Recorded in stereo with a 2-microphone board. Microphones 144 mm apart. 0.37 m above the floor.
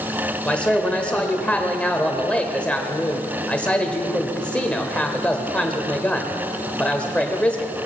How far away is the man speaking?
About 1.0 m.